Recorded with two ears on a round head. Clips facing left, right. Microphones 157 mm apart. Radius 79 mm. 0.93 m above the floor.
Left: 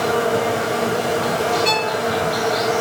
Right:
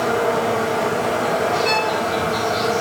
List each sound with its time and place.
0.0 s an insect: 45° left (ahead or behind), 5.5 m
1.6 s a violin: 65° left (ahead or behind), 1.8 m